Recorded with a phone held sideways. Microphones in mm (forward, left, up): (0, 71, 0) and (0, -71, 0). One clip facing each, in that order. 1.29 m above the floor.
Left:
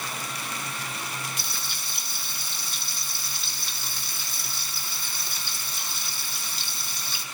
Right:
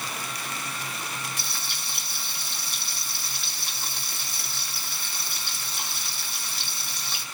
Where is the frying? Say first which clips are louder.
Even; 75° right (ahead or behind), 4 m.